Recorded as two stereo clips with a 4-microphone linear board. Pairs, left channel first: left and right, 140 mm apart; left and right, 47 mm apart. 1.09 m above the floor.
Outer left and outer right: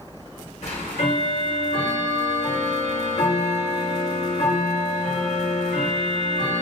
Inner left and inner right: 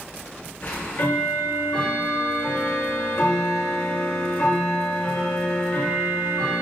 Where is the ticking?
50° left (ahead or behind), 1.0 m.